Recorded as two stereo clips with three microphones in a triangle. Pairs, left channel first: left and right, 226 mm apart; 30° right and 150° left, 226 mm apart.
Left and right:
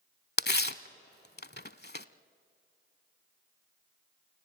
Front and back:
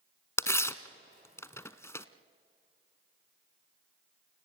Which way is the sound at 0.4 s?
45° left.